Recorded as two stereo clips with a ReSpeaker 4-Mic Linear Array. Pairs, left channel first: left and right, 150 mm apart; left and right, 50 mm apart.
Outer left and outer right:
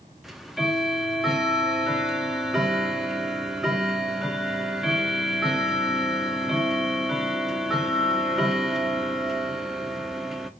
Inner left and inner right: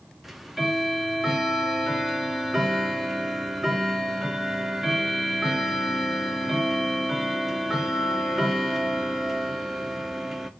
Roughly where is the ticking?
Centre.